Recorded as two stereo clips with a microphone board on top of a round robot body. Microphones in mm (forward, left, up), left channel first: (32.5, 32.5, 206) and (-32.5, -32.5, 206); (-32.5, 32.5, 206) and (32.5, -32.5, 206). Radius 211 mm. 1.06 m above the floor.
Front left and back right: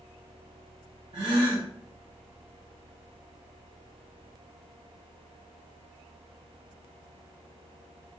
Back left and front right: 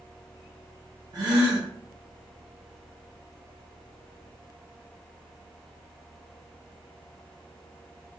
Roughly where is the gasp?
Right.